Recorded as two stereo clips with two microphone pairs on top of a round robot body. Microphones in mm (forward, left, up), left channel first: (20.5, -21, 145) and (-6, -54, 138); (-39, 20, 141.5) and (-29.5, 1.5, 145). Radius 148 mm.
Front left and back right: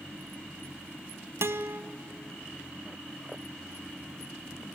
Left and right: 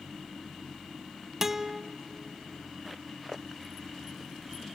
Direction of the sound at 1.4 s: 140° right.